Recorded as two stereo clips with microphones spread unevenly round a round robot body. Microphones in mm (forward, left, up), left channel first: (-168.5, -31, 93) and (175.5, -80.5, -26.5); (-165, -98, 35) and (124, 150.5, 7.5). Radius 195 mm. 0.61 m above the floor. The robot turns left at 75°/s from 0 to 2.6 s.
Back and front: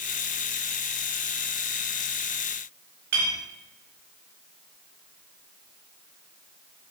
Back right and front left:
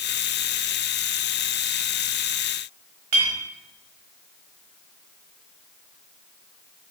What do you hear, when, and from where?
3.1 s a clink: 35° left, 1.1 m